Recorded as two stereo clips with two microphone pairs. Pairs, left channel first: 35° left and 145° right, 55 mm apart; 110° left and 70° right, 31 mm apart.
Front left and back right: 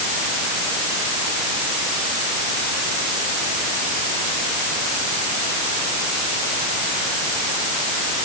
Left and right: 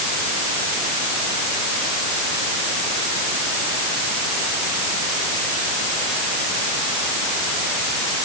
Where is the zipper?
I don't hear a zipper.